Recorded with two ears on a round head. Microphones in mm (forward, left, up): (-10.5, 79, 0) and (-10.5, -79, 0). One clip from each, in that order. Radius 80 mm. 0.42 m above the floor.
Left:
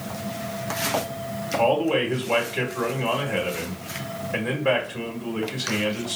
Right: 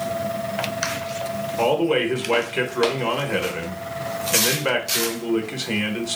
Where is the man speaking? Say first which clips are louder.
Right 1 dB; 50° right (ahead or behind), 1.2 m.